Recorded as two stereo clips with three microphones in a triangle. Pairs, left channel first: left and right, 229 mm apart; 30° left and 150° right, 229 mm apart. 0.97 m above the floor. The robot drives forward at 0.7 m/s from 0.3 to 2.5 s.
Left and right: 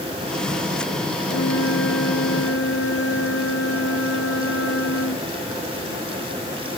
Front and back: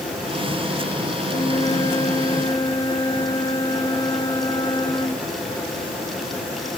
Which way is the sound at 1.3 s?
95° left.